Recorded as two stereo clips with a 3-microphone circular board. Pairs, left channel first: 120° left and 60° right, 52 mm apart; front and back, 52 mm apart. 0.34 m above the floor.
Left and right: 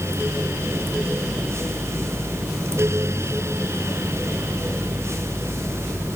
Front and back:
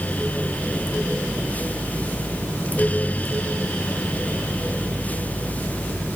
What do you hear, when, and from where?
Only background noise.